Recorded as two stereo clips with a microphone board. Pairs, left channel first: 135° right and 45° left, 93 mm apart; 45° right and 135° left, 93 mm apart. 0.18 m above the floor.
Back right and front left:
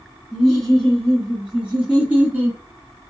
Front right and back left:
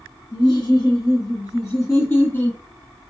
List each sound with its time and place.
0.3 s laughter: 50° right, 2.5 m; by 2.6 s straight ahead, 1.7 m